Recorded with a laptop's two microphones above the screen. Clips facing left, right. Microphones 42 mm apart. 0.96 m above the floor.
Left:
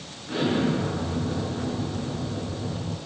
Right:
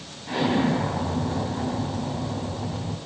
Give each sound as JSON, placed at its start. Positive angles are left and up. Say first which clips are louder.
{"t": 0.3, "sound": "an explosion", "louder": "right 2 dB", "side_deg": -75, "distance_m": 3.0}